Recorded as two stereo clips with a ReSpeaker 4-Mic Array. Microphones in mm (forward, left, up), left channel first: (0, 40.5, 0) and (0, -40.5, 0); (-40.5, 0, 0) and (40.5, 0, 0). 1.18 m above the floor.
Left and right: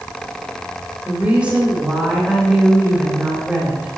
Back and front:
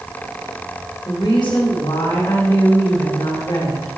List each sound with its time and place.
1.1 s a woman speaking: 165° right, 3 m